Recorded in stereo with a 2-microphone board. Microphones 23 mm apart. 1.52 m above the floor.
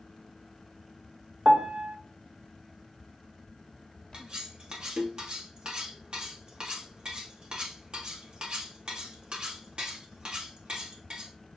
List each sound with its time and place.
1.4 s a piano: 45° right (ahead or behind), 0.6 m
4.1 s cutlery clinking: 45° right (ahead or behind), 1.2 m